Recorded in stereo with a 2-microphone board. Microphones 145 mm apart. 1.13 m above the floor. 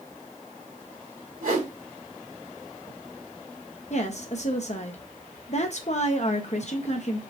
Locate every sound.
1.4 s a whoosh: 70° right (ahead or behind), 1.7 m
3.9 s a woman speaking: 50° left (ahead or behind), 0.6 m